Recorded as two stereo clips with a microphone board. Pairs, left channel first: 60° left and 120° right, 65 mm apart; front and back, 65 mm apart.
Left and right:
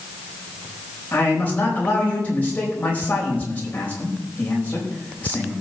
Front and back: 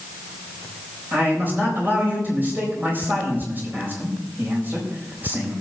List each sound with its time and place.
1.1 s a man speaking: 125° left, 4 m